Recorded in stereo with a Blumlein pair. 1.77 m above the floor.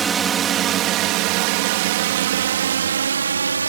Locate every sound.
0.0 s a drone: 20° right; by 3.7 s 75° right